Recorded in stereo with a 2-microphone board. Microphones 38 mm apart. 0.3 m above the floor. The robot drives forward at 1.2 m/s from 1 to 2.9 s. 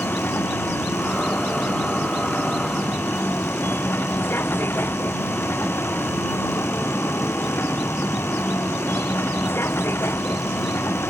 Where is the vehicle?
65° left (ahead or behind); by 11.1 s 85° left.